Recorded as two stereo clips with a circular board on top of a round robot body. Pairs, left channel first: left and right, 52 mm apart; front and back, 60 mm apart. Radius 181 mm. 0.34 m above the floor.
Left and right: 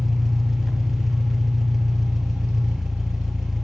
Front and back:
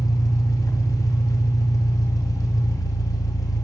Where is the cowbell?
I don't hear a cowbell.